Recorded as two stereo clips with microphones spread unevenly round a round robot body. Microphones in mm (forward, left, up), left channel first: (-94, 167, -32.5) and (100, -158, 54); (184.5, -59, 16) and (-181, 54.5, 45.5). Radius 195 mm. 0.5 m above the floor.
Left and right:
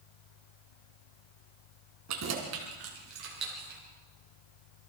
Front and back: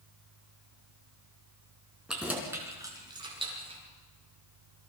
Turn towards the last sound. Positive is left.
turn(degrees=-125)